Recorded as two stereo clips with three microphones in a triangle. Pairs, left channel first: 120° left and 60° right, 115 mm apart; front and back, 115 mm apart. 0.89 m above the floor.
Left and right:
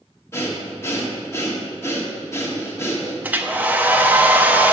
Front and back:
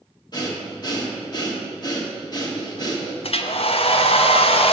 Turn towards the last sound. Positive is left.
turn(degrees=10)